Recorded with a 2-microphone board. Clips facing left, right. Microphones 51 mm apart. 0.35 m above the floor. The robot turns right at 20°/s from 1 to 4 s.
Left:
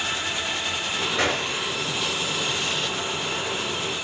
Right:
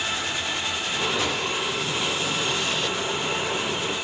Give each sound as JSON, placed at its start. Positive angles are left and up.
{"t": 1.2, "sound": "a gunshot", "side_deg": 70, "distance_m": 5.5}